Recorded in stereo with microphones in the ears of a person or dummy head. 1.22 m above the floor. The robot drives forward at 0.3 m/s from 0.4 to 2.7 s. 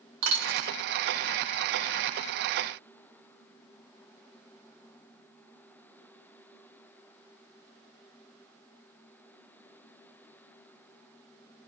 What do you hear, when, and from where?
0.2 s a dropped coin: 65° right (ahead or behind), 1.9 m; by 0.7 s 70° right (ahead or behind), 1.8 m